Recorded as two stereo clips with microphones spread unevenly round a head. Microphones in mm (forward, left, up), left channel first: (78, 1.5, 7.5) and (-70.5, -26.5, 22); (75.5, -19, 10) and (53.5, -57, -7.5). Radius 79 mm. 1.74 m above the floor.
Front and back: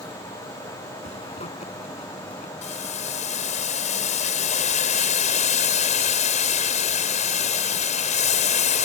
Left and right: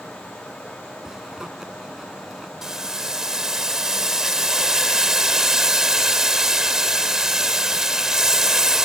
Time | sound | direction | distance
1.0 | a zipper | 40° right | ?
2.6 | boiling | 35° right | ?